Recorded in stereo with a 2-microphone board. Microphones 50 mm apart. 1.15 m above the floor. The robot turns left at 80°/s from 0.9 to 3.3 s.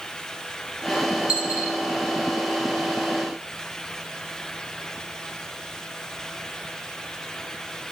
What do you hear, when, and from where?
1.3 s a dropped coin: 20° right (ahead or behind), 1.1 m; by 1.8 s 55° right (ahead or behind), 1.1 m